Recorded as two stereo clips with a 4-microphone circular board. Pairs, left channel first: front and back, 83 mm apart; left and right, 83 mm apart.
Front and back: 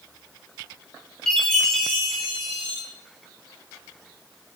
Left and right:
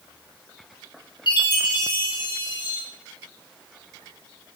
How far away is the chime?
About 3 m.